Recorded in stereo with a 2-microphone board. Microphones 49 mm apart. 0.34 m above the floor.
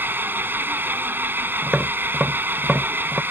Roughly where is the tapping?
Right.